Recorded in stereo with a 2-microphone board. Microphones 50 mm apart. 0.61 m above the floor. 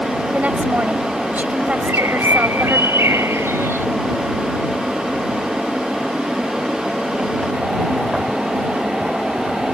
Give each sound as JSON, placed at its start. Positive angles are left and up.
{"t": 0.3, "sound": "a woman speaking", "side_deg": -35}
{"t": 1.8, "sound": "a bird", "side_deg": -80}